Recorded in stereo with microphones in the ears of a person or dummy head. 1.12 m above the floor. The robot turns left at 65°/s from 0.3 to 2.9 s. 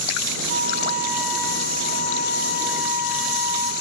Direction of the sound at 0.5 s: 130° right.